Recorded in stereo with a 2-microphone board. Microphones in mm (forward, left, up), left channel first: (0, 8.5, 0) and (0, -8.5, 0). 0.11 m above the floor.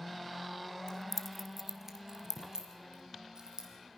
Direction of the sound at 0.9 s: 35° left (ahead or behind).